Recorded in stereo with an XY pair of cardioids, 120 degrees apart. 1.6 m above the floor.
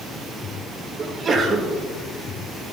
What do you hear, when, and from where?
1.0 s a sneeze: 40° right, 2 m